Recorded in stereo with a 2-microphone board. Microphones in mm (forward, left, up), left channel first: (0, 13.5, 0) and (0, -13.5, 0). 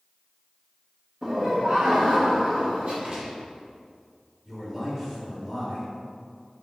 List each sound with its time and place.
1.2 s laughter: 25° right (ahead or behind), 0.9 m; by 2.9 s 60° right (ahead or behind), 3.5 m
3.0 s a gunshot: 40° right (ahead or behind), 3 m
4.5 s a man speaking: 15° right (ahead or behind), 3 m